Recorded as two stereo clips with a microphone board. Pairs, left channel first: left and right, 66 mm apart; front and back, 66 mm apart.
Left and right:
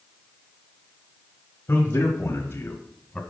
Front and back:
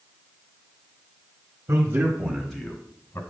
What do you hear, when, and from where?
1.7 s a man speaking: 145° left, 1.8 m; by 3.2 s 15° left, 1.3 m